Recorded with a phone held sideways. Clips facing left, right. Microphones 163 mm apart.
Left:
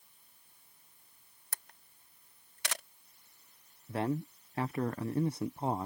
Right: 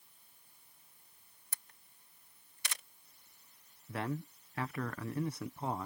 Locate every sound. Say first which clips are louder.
1.5 s a camera shutter: left 7 dB; 90° left
3.9 s a man speaking: left 5 dB; 30° left (ahead or behind)